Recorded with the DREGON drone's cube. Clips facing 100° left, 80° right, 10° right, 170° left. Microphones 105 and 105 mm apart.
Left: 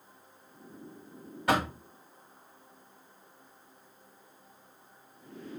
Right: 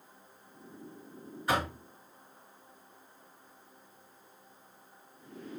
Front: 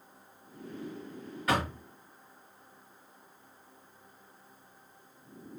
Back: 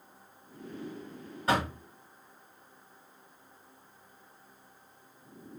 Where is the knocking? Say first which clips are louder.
Left 3 dB, back 1 dB; 110° left, 1.7 m.